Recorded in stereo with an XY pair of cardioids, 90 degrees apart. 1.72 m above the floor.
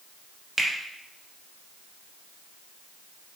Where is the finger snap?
20° right, 1.2 m.